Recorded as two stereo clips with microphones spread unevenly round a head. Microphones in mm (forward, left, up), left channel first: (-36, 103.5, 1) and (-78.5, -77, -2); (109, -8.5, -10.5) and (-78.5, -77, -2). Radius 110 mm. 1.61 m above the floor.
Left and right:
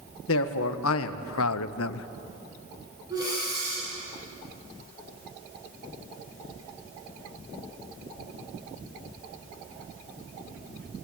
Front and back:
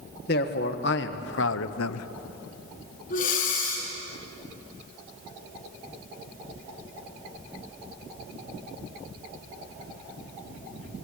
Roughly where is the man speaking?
Left.